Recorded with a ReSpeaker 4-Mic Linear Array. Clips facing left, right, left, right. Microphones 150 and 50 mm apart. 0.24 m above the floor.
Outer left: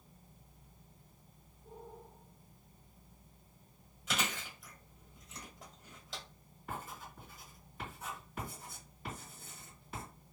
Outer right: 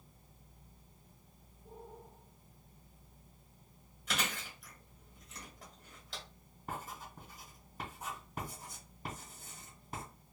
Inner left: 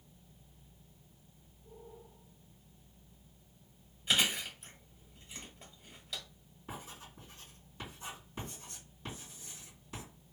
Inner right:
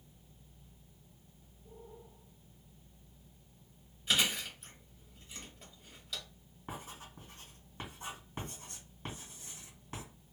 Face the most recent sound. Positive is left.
turn(degrees=-45)  # may be behind; listen again after turning